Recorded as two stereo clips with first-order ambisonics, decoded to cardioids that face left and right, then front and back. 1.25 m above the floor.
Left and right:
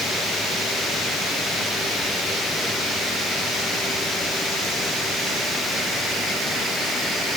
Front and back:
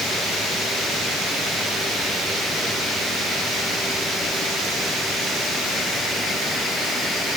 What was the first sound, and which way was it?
Only background noise.